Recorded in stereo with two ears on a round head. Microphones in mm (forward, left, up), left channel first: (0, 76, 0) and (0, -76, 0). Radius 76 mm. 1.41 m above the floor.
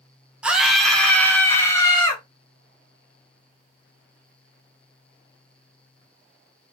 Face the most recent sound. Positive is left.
turn(degrees=25)  # may be behind; listen again after turning